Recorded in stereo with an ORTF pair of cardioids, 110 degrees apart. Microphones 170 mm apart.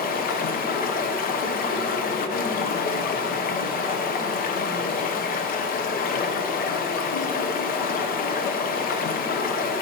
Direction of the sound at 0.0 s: 60° left.